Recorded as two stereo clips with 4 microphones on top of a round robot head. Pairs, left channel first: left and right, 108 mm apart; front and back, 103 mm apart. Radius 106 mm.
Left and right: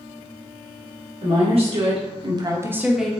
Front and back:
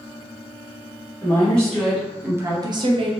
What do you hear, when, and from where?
1.2 s a woman speaking: 75° right, 1.9 m; by 3.1 s straight behind, 1.3 m